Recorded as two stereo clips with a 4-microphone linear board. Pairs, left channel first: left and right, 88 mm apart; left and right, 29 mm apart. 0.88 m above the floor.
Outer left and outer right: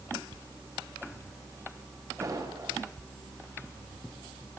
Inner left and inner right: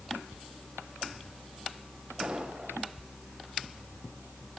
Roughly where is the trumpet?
No trumpet in this recording.